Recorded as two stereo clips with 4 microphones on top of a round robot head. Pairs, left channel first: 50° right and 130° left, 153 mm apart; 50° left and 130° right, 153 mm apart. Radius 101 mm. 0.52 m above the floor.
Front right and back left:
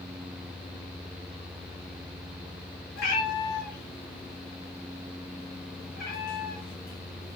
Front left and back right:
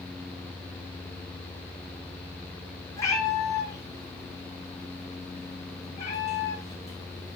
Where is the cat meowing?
20° right, 3 m.